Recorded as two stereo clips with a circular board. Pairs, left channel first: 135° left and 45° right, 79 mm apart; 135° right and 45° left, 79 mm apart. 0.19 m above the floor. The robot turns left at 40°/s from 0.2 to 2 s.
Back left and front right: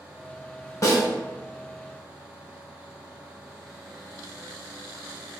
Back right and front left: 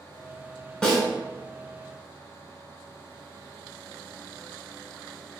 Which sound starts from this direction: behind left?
A snare drum, at 0.8 s.